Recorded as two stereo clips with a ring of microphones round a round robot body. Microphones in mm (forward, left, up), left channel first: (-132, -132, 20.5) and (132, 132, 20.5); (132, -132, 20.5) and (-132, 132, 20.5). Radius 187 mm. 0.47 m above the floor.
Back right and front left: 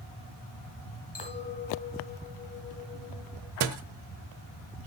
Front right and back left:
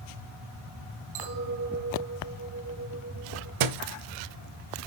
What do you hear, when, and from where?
1.1 s a clink: 150° left, 2.5 m
3.6 s a thud: 100° left, 0.8 m